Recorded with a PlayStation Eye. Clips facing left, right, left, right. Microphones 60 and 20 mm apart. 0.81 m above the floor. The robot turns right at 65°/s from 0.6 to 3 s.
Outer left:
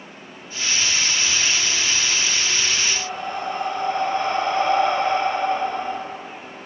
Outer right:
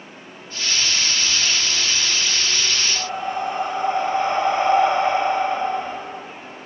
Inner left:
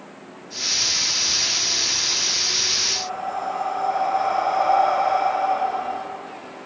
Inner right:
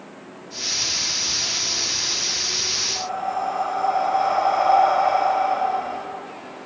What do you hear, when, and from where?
3.0 s breathing: 20° right (ahead or behind), 0.7 m